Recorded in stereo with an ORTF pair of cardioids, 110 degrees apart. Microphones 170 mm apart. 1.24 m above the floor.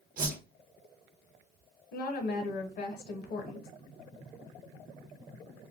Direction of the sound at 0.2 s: 55° right.